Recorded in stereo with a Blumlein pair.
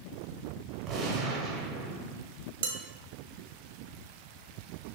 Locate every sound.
0.9 s a gunshot: 25° right, 0.8 m
2.6 s dishes clattering: 55° right, 0.6 m